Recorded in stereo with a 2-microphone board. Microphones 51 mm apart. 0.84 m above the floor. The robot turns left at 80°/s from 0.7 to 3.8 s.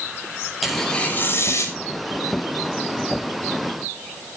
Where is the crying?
No crying in this recording.